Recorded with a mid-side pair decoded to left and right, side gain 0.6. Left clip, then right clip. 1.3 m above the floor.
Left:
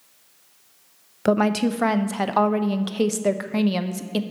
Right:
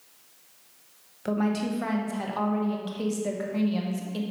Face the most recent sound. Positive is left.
turn(degrees=55)